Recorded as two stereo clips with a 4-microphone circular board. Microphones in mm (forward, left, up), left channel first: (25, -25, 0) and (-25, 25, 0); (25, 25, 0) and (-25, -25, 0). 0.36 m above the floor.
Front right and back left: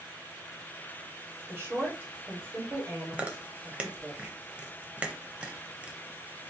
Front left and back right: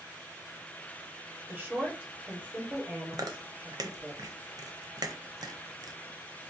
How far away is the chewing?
About 0.5 m.